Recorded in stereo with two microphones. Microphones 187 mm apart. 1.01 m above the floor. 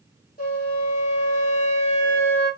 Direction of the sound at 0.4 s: 50° left (ahead or behind).